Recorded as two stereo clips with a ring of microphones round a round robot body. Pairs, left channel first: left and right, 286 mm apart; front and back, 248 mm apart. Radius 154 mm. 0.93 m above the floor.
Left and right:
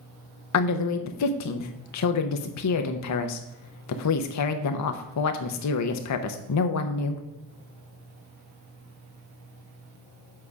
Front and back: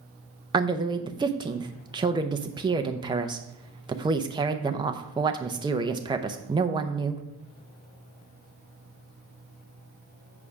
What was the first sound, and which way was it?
A woman speaking, 110° left.